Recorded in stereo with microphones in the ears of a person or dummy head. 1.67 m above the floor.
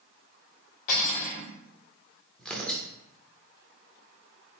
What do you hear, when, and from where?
0.9 s cutlery clinking: 50° left (ahead or behind), 1.8 m
2.4 s tearing paper: centre (ahead or behind), 0.7 m